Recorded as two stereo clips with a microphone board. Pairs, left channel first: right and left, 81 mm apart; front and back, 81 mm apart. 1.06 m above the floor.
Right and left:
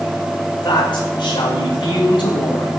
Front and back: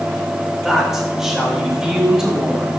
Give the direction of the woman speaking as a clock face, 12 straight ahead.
3 o'clock.